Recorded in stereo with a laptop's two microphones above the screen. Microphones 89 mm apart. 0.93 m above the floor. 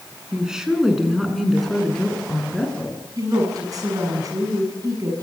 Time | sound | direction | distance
0.3 | a woman speaking | 10° right (ahead or behind) | 8 m
3.2 | a woman speaking | 40° right (ahead or behind) | 7 m